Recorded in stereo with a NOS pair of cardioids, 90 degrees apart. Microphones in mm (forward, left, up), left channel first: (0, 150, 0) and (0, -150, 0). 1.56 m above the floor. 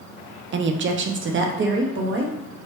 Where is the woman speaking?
40° right, 0.5 m.